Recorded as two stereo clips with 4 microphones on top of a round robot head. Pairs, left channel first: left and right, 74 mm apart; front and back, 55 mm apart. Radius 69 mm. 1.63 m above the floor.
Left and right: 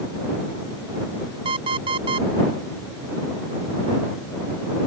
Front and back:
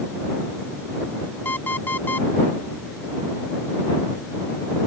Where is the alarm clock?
70° right.